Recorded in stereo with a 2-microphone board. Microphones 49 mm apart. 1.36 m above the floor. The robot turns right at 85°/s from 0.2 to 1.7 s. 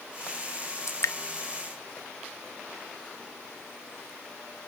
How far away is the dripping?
About 0.7 m.